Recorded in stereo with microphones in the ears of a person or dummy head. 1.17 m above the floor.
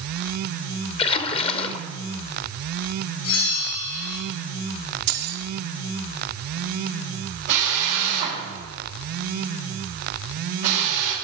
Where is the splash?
35° left (ahead or behind), 0.8 m.